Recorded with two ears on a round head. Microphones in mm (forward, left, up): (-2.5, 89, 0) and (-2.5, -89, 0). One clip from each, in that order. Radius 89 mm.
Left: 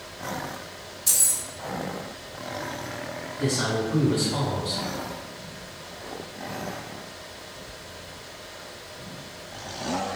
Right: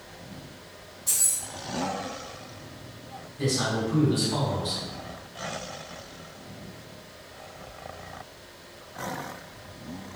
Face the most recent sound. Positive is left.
turn(degrees=-45)  # may be behind; listen again after turning